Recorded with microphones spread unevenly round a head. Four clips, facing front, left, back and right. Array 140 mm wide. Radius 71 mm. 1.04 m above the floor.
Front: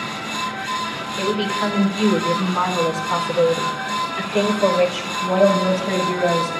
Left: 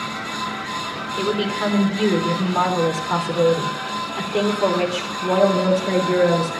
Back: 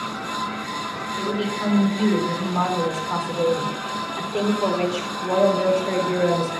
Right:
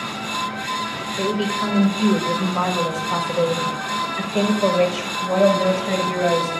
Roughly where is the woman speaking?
Ahead left.